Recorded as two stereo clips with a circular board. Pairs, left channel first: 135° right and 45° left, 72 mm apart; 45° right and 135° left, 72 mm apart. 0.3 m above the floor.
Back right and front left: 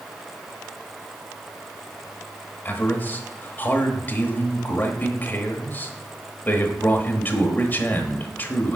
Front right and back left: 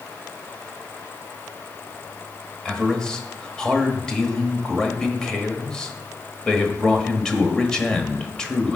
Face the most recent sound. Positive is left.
turn(degrees=-115)